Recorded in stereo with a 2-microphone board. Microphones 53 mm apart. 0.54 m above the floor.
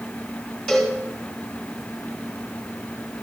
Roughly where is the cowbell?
Centre.